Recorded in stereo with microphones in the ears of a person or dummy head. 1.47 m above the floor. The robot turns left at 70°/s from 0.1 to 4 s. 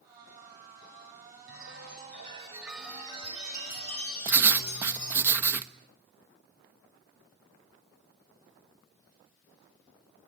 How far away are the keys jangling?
No keys jangling in this recording.